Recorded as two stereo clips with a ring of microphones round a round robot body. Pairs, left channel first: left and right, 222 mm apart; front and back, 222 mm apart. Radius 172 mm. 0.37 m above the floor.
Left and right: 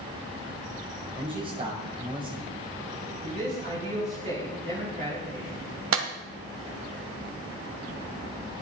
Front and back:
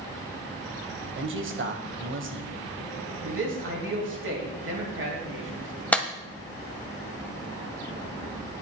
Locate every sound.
1.2 s a man speaking: 160° right, 1.9 m
3.2 s a man speaking: 155° right, 4 m
5.9 s a clap: 85° right, 1.6 m